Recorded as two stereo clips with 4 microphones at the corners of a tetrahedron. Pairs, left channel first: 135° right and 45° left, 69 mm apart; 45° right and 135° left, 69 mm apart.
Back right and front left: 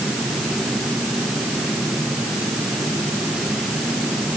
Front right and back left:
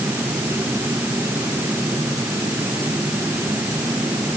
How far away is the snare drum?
I don't hear a snare drum.